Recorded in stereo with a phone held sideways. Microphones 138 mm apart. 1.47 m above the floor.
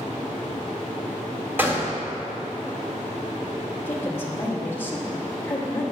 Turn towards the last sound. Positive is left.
turn(degrees=15)  # may be behind; listen again after turning